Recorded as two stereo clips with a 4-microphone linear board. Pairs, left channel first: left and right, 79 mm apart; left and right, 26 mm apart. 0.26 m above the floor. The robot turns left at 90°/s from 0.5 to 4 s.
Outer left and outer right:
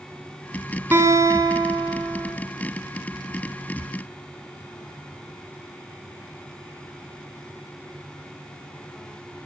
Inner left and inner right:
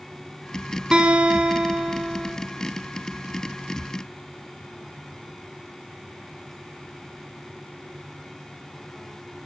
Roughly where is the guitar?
Ahead right.